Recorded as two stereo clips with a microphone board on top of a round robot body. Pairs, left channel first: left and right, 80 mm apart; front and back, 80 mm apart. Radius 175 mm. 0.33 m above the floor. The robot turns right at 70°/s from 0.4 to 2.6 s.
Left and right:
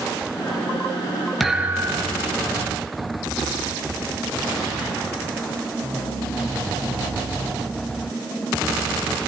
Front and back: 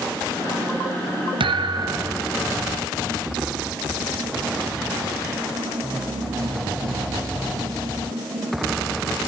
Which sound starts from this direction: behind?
A thud, at 1.4 s.